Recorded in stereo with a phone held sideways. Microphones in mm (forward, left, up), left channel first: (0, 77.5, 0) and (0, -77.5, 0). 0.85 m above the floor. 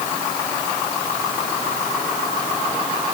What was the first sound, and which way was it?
Only background noise.